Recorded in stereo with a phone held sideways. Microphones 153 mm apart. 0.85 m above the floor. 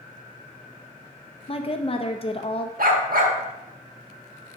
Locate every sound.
1.5 s a woman speaking: 40° left (ahead or behind), 0.6 m
2.8 s a dog barking: 75° right (ahead or behind), 1.1 m